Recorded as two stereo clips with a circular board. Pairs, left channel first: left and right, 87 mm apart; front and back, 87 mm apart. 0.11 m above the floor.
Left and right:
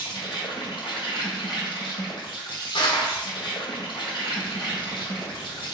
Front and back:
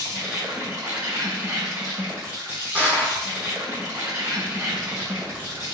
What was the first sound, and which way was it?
An insect, 110° left.